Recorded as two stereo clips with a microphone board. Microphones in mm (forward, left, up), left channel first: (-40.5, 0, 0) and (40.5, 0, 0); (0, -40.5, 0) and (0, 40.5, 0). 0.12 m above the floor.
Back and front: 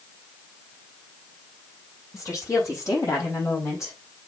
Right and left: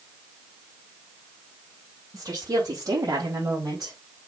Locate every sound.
2.1 s a woman speaking: 130° left, 4.5 m; by 4.0 s 125° left, 4 m